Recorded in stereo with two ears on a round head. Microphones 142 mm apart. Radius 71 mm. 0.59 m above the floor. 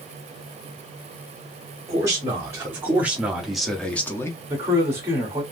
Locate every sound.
1.9 s a man speaking: 20° right (ahead or behind), 1.3 m; by 4.4 s 20° left (ahead or behind), 0.6 m
4.5 s a man speaking: 15° right (ahead or behind), 1.2 m